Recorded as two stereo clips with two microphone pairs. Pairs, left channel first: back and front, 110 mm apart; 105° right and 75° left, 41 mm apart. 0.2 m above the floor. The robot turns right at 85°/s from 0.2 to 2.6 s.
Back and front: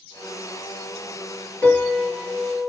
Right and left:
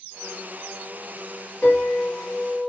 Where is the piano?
125° right, 1.2 m; by 2.7 s 45° right, 1.2 m.